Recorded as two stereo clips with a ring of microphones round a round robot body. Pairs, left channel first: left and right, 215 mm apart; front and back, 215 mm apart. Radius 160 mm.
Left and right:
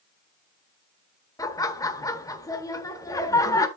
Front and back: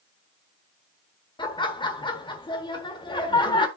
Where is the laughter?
35° left, 1.4 m.